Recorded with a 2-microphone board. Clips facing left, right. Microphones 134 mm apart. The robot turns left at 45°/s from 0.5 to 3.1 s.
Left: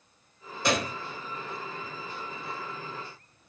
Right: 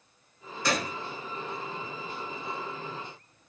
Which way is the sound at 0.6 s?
25° left (ahead or behind).